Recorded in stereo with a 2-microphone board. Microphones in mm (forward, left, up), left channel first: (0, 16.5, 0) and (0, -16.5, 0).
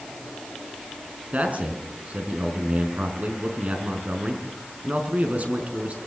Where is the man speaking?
45° right (ahead or behind), 5 m.